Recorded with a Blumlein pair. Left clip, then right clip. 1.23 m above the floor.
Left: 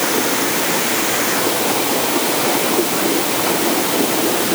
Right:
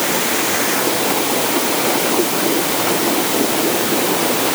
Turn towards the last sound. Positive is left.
No sound to turn to.